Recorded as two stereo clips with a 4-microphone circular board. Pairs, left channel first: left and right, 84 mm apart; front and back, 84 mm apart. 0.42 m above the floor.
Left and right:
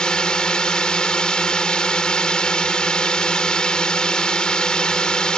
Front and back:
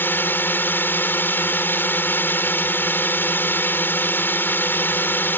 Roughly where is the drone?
Ahead.